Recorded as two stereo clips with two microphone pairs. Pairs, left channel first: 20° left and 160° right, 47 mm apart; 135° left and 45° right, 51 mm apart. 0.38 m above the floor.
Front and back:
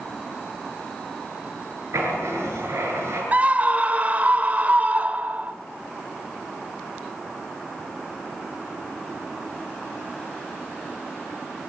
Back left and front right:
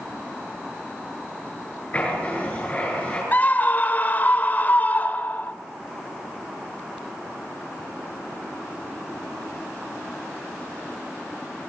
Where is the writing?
160° right, 7 m.